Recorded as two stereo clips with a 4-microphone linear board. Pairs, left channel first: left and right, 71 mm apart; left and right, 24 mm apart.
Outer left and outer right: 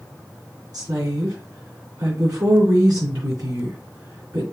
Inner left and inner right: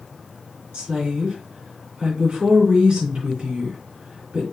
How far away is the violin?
I don't hear a violin.